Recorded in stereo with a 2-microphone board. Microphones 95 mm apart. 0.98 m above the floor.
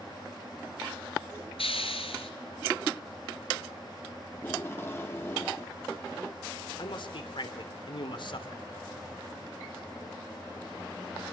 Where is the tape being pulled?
25° left (ahead or behind), 2.5 m.